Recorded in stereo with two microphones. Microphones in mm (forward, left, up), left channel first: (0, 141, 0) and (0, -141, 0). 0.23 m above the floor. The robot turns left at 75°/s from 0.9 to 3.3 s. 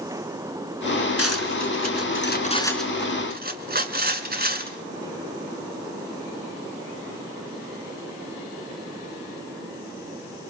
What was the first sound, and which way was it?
Cutlery clinking, 50° left (ahead or behind).